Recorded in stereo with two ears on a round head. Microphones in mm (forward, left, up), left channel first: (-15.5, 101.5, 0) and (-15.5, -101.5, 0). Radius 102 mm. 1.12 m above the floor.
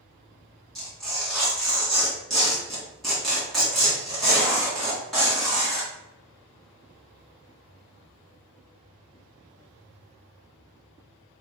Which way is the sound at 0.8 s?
Centre (ahead or behind).